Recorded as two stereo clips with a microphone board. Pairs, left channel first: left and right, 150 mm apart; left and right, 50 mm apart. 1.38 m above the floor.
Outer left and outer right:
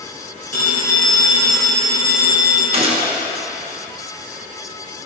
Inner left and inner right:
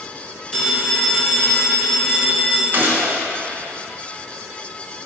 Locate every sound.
0.5 s a phone ringing: 15° left (ahead or behind), 2.5 m
2.7 s a gunshot: 45° right (ahead or behind), 1.0 m